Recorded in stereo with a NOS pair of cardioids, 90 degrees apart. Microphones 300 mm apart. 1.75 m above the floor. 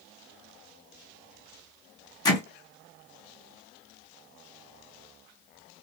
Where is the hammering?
15° left, 1.5 m.